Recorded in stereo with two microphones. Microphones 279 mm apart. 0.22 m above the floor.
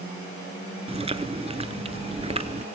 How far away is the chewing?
About 0.9 m.